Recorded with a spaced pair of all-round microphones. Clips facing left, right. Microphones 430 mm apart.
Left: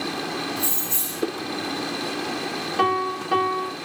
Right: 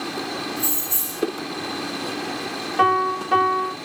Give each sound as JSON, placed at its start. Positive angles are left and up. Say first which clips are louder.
{"t": 0.6, "sound": "keys jangling", "louder": "right 1 dB", "side_deg": 75, "distance_m": 0.8}
{"t": 2.8, "sound": "a piano", "louder": "right 2 dB", "side_deg": 0, "distance_m": 1.2}